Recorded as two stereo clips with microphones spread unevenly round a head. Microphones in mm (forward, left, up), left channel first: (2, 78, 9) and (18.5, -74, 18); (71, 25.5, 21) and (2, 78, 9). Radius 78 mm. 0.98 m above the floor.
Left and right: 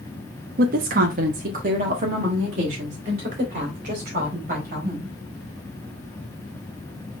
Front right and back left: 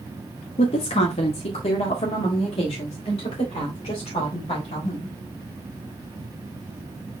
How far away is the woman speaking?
About 0.7 m.